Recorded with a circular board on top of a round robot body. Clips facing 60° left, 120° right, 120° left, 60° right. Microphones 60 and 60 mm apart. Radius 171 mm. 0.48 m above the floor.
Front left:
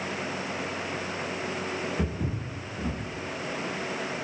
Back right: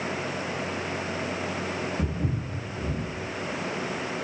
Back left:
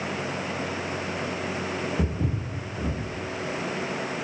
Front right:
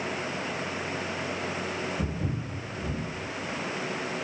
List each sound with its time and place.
2.0 s footsteps: 130° left, 0.8 m